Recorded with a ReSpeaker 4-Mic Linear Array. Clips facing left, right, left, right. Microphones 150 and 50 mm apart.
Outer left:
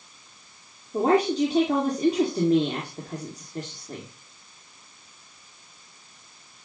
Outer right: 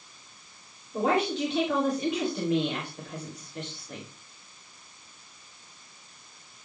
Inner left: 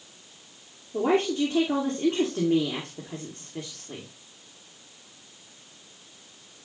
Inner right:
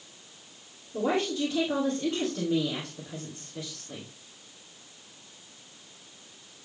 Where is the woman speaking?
35° left (ahead or behind), 2.5 m.